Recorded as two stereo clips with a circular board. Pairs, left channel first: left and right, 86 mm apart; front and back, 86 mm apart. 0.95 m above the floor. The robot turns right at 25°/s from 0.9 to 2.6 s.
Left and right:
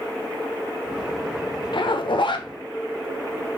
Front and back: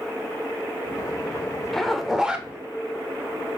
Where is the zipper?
85° left, 1.1 m; by 2.5 s 105° left, 1.1 m.